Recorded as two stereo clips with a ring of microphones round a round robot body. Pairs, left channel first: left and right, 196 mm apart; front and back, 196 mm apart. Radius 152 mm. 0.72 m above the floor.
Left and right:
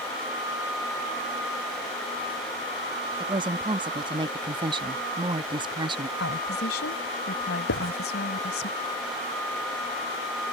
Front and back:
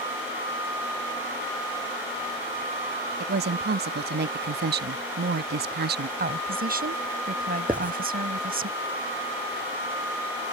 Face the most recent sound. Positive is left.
turn(degrees=100)